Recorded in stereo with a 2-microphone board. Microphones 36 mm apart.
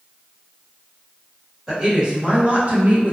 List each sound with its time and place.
1.7 s a woman speaking: 20° right (ahead or behind), 1.3 m; by 3.1 s 50° right (ahead or behind), 0.8 m